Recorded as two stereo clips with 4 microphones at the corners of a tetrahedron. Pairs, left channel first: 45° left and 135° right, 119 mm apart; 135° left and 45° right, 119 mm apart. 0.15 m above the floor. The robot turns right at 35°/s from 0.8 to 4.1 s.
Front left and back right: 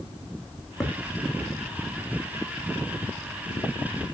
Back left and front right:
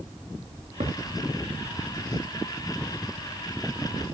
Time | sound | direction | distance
0.8 | a thud | 45° right | 3.5 m